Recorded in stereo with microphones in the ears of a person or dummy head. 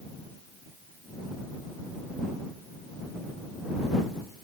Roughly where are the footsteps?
No footsteps in this recording.